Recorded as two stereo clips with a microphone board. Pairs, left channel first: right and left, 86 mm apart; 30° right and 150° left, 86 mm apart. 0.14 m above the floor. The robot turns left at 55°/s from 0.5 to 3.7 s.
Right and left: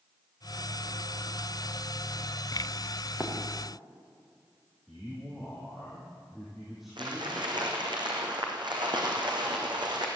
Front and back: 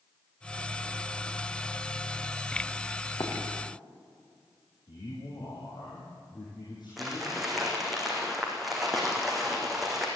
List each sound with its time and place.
3.2 s running footsteps: 10° left, 4.5 m; by 3.3 s 5° left, 4.5 m
4.9 s a man speaking: 5° left, 5 m
7.0 s crumpling: 60° left, 4 m